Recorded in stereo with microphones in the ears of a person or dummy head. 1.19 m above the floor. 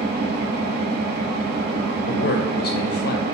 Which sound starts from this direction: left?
A man speaking, at 2.1 s.